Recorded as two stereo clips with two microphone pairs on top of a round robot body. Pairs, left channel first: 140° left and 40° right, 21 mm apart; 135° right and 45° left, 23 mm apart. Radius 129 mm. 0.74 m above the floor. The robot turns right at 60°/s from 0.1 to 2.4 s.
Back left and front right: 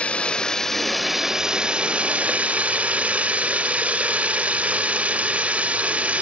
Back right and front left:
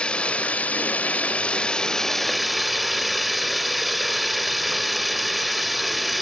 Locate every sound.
0.0 s running water: straight behind; by 6.2 s 45° right